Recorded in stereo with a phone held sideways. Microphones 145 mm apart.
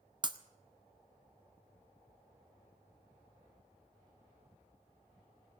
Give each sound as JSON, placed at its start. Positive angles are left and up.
{"t": 0.2, "sound": "breaking glass", "side_deg": -30, "distance_m": 0.6}